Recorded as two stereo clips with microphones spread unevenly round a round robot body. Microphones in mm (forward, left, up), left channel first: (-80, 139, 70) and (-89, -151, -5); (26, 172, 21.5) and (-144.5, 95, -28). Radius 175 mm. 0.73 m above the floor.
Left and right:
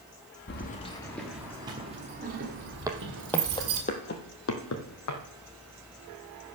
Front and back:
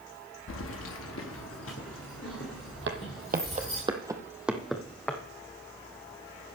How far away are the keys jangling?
About 0.7 m.